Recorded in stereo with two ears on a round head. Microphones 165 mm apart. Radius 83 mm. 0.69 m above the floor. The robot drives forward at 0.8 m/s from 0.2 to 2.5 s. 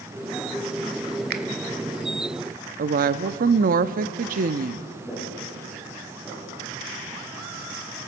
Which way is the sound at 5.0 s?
Centre (ahead or behind).